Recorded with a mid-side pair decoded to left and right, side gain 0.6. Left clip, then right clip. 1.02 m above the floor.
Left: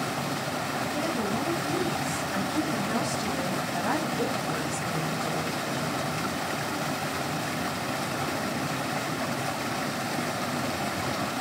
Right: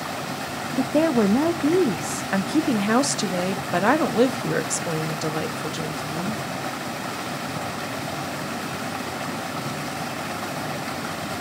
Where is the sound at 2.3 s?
65° right, 1.0 m.